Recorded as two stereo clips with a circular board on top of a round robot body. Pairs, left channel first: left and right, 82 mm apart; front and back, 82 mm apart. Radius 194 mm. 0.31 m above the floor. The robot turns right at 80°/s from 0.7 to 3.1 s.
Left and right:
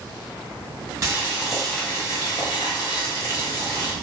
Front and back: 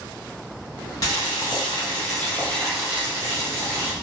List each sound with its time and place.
1.0 s boiling: 40° right, 1.3 m; by 3.9 s 125° left, 1.3 m